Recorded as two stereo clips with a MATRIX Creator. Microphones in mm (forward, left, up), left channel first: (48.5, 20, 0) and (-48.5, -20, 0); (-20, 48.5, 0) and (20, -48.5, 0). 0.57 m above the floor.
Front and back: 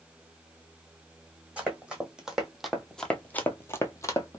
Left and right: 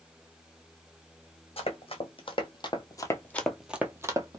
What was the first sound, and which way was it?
Running footsteps, 125° left.